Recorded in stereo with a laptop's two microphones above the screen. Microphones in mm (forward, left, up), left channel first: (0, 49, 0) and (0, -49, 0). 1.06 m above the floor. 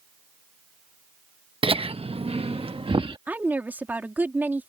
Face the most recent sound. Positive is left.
turn(degrees=-20)  # may be behind; listen again after turning